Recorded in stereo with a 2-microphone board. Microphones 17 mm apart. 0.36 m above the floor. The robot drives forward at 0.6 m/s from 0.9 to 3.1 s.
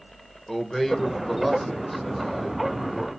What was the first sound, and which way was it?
A man speaking, 15° left (ahead or behind).